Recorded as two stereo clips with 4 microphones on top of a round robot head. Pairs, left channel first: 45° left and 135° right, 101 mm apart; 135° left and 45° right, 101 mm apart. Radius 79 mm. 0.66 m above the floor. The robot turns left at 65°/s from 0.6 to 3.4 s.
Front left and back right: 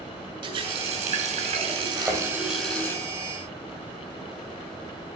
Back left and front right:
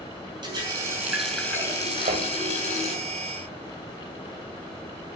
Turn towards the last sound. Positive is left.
turn(degrees=-135)